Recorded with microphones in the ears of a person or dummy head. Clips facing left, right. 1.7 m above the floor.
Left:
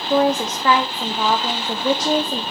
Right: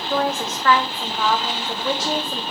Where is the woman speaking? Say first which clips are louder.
Left 6 dB; 15° left (ahead or behind), 1.0 m.